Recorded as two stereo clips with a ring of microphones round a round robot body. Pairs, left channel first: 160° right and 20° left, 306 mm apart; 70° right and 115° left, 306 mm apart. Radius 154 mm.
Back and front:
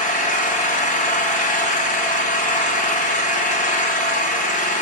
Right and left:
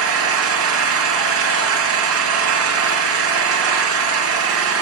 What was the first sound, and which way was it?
An engine running, 140° left.